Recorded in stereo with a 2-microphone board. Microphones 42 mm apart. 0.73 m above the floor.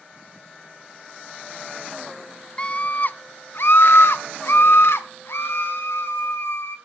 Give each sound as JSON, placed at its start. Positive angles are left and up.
{"t": 2.6, "sound": "a scream", "side_deg": 20, "distance_m": 0.6}